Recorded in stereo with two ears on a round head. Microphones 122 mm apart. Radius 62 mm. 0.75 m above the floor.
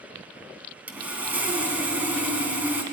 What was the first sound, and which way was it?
Sawing, 10° right (ahead or behind).